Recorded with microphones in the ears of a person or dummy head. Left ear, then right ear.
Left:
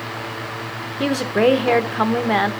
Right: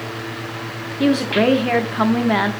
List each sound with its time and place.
1.0 s a woman speaking: 15° left (ahead or behind), 0.9 m